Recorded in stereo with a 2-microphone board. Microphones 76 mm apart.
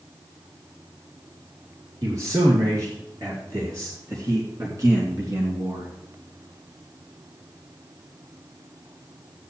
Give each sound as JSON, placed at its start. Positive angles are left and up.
{"t": 2.0, "sound": "a man speaking", "side_deg": -45, "distance_m": 4.5}